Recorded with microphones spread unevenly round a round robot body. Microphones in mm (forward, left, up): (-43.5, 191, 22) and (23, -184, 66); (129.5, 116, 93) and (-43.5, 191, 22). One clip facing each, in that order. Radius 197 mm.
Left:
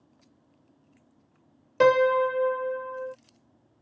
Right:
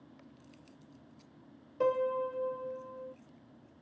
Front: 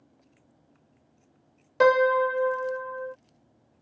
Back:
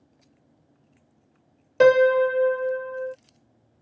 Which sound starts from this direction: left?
A piano, at 1.8 s.